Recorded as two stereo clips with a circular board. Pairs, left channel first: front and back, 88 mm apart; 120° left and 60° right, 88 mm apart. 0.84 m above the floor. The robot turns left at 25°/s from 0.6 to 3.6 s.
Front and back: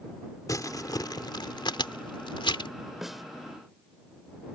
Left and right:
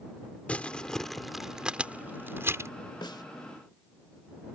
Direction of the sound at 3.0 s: 95° left.